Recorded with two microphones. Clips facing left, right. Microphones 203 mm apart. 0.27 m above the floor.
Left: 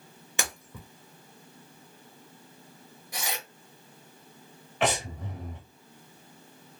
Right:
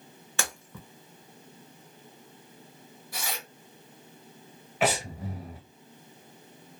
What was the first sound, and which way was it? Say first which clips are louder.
Breaking glass: even; 15° left (ahead or behind).